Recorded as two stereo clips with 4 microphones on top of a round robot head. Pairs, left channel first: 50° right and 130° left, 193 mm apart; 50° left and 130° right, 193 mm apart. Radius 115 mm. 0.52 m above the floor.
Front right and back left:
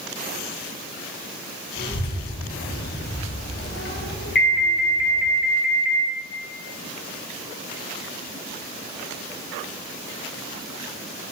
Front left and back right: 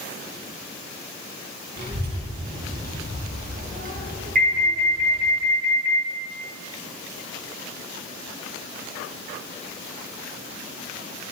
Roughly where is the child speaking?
Right.